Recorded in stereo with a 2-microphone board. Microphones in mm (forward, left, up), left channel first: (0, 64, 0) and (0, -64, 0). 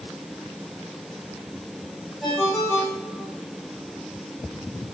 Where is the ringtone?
5° right (ahead or behind), 5.5 m.